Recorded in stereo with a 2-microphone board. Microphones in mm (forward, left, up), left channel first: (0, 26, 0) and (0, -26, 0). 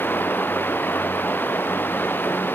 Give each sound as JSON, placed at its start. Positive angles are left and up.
{"t": 0.0, "sound": "running water", "side_deg": 45}